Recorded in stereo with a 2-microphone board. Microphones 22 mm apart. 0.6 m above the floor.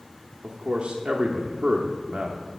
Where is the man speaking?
50° right (ahead or behind), 0.9 m.